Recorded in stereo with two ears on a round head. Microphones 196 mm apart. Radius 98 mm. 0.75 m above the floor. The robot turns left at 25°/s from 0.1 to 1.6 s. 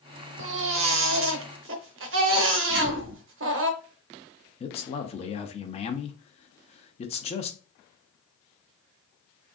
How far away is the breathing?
No breathing in this recording.